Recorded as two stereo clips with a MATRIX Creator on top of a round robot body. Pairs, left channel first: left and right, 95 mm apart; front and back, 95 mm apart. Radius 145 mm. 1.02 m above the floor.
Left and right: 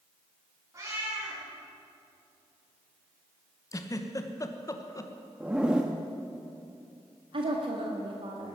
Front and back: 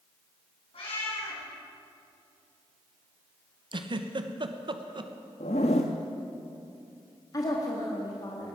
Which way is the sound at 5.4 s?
10° right.